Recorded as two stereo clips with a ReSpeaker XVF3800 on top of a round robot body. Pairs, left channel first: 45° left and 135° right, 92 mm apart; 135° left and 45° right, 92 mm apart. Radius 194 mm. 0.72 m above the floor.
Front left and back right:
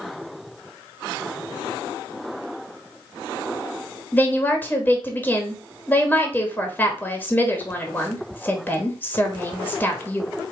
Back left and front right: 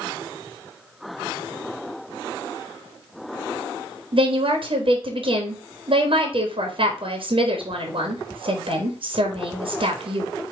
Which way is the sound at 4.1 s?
25° right.